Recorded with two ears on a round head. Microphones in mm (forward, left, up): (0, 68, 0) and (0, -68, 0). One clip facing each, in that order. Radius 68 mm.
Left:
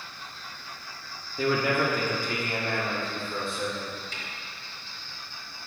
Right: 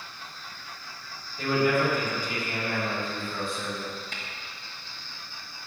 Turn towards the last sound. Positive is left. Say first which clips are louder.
# right 1 dB
turn(degrees=-45)  # may be behind; listen again after turning